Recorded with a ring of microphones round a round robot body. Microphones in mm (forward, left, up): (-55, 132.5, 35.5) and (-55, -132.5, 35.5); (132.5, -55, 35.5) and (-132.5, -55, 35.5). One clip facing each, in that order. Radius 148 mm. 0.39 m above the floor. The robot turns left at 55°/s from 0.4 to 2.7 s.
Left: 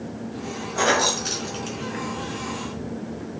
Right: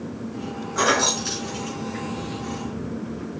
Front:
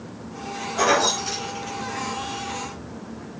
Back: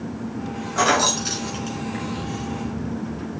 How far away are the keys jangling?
About 3.5 m.